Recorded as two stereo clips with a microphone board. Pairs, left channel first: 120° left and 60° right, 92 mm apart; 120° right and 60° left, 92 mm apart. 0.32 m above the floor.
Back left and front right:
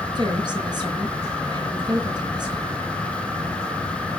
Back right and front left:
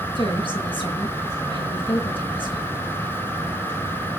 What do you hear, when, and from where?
0.1 s a woman speaking: 100° right, 6 m